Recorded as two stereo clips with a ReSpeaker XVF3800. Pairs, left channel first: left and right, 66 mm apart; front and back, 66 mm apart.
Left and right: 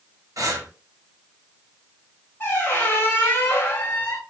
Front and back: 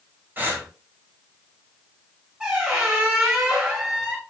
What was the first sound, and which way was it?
Breathing, 120° right.